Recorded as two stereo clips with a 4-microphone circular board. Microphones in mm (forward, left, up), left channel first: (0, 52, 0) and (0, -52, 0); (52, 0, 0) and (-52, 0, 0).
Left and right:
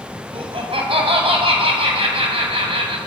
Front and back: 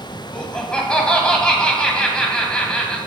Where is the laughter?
80° right, 1.9 m.